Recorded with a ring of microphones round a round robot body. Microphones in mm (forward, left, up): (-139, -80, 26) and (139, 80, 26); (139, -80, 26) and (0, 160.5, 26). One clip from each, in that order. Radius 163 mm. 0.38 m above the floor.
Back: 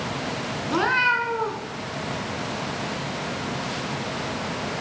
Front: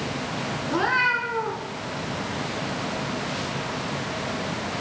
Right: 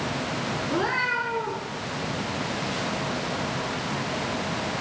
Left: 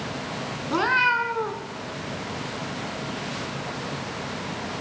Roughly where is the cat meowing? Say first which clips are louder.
Back 1 dB, left 6 dB; behind left.